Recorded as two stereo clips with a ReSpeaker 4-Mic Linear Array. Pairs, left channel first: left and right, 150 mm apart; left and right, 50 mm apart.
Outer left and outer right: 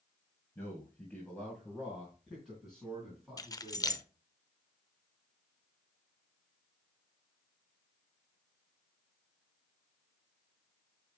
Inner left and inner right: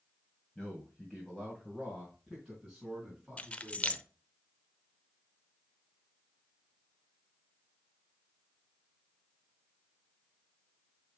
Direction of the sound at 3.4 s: 25° left (ahead or behind).